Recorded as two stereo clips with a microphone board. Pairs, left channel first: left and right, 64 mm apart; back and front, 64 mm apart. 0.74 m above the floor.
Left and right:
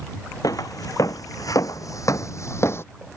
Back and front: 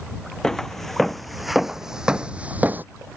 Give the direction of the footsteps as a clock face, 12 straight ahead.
9 o'clock.